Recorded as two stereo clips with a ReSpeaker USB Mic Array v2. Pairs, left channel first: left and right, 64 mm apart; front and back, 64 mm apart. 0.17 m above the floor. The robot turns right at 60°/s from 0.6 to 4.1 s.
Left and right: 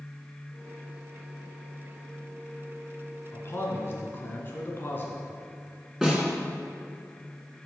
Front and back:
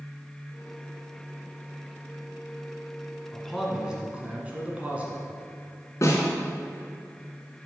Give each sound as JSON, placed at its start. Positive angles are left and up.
{"t": 3.3, "sound": "a man speaking", "azimuth_deg": 75, "distance_m": 1.8}
{"t": 6.0, "sound": "a snare drum", "azimuth_deg": -5, "distance_m": 2.0}